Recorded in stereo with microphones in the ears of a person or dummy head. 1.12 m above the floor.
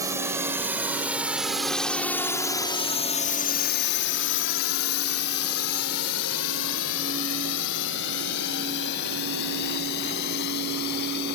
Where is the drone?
20° right (ahead or behind); by 11.4 s 60° left (ahead or behind).